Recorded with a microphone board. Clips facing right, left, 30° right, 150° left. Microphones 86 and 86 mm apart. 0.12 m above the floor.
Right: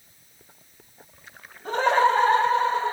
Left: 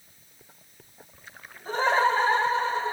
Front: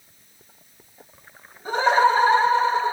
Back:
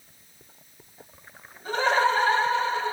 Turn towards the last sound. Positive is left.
turn(degrees=-100)